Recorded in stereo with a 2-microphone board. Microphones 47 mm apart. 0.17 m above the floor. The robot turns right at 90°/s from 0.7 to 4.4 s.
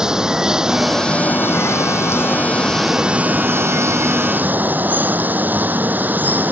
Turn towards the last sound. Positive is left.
turn(degrees=-40)